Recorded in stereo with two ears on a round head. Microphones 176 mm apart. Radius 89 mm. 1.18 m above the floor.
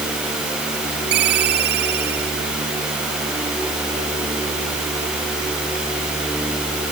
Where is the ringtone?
60° right (ahead or behind).